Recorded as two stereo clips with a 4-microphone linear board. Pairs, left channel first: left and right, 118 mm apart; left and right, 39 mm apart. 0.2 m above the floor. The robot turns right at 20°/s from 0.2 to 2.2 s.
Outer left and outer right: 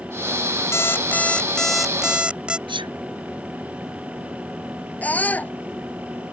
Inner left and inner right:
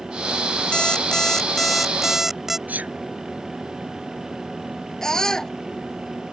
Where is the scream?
10° left (ahead or behind).